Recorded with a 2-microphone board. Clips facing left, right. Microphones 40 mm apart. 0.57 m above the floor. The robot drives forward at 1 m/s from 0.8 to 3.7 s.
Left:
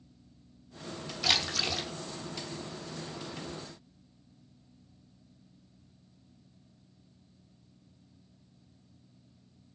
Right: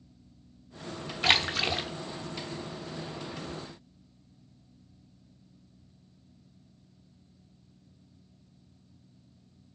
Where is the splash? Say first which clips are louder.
Right 5 dB; 40° right (ahead or behind), 0.9 m; by 1.9 s 25° right (ahead or behind), 1.3 m.